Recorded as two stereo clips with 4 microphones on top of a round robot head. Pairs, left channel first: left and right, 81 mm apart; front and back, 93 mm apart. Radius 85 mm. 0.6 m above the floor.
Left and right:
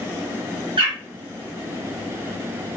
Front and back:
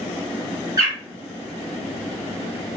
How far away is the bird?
About 1.3 m.